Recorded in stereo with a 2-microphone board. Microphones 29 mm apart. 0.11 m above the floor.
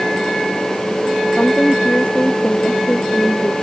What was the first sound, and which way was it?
A woman speaking, 35° left (ahead or behind).